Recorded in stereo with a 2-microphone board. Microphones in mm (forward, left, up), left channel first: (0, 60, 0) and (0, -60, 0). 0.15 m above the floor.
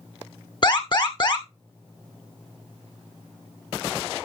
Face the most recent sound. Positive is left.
turn(degrees=40)  # may be behind; listen again after turning